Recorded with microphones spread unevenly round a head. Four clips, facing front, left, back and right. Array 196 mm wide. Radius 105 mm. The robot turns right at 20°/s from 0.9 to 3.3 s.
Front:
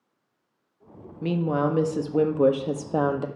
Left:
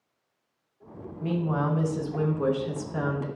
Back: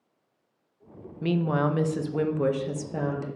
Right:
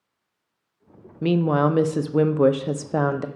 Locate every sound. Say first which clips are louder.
1.2 s a woman speaking: right 8 dB, front 1 dB; 85° right, 0.6 m; by 3.2 s 45° right, 0.6 m